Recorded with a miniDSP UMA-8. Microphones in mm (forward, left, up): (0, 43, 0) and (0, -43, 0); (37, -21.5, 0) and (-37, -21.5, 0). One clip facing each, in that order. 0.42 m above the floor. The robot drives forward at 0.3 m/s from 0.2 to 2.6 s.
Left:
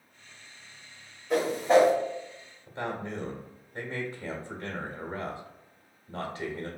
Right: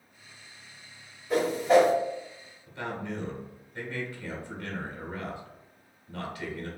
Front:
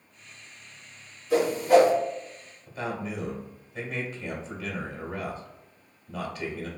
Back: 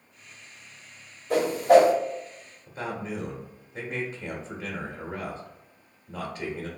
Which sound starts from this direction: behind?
A whoosh, at 1.3 s.